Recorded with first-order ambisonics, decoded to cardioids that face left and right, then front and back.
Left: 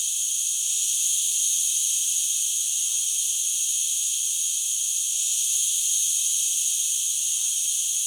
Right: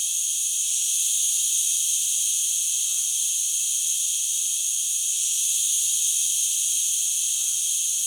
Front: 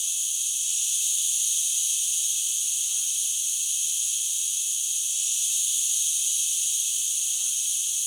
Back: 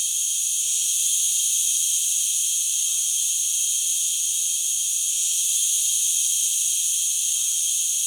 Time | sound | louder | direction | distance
0.0 | an insect | even, back 3 dB | 160° right | 1.6 m